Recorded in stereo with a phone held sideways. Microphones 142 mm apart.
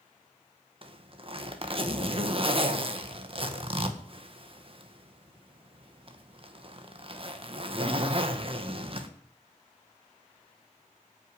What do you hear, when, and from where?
0.8 s a zipper: 40° right (ahead or behind), 1.7 m